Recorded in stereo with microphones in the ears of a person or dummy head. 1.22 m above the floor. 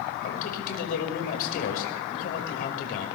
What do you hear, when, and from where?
0.2 s a man speaking: 55° left (ahead or behind), 5 m